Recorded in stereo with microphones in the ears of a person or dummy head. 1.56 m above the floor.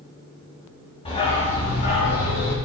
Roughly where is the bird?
I don't hear a bird.